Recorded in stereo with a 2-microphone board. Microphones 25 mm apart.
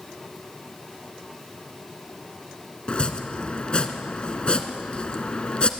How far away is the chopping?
About 1.7 m.